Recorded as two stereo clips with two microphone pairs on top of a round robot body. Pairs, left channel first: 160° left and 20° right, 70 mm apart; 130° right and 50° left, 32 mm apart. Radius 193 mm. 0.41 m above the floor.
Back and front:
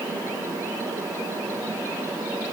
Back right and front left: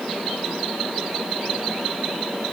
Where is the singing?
No singing in this recording.